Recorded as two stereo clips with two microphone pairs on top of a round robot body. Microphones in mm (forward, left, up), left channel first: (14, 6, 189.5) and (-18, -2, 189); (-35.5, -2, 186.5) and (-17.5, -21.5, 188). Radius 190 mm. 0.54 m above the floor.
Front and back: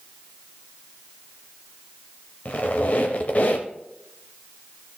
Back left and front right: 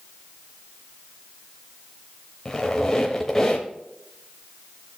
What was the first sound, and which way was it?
A squeak, 60° left.